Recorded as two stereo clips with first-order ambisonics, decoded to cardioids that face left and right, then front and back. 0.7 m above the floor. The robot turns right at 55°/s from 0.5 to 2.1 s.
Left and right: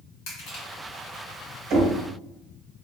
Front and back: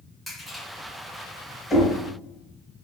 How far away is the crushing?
About 2.0 m.